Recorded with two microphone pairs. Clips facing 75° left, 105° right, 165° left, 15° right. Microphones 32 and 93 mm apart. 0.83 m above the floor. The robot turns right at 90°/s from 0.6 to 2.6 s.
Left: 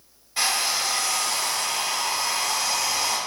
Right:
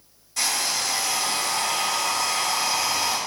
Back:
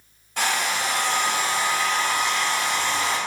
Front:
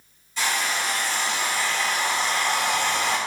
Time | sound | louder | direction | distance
0.4 | a hair dryer | left 1 dB, back 2 dB | 140° left | 3.5 m